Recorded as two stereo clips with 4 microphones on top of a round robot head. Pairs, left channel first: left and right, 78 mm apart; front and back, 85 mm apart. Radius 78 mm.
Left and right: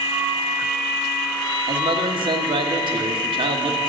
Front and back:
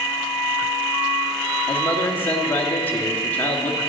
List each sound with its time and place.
1.7 s a man speaking: 75° right, 1.5 m